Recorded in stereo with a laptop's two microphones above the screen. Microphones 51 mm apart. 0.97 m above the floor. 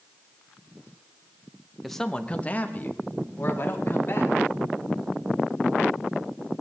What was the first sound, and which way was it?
A man speaking, centre (ahead or behind).